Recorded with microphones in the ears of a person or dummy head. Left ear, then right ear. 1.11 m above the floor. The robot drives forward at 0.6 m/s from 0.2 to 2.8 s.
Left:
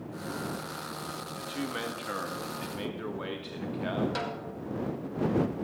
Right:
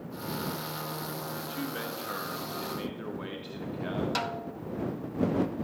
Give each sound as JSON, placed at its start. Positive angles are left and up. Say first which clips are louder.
{"t": 1.4, "sound": "a man speaking", "louder": "left 4 dB", "side_deg": 15, "distance_m": 1.3}
{"t": 4.2, "sound": "a snare drum", "louder": "right 2 dB", "side_deg": -20, "distance_m": 0.6}